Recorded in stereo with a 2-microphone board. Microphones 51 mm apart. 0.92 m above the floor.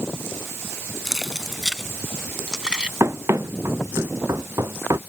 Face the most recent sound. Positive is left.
turn(degrees=-70)  # may be behind; listen again after turning